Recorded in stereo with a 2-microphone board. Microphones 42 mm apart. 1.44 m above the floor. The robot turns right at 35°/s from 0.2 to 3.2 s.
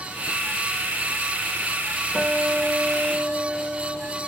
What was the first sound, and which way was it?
A guitar, 60° right.